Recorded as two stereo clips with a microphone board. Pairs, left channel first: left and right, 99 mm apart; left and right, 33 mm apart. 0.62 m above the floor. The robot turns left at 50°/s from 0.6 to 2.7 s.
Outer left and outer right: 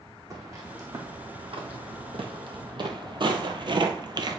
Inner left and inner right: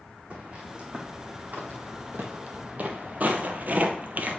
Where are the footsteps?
35° right (ahead or behind), 2.5 m; by 4.4 s 45° right (ahead or behind), 0.9 m.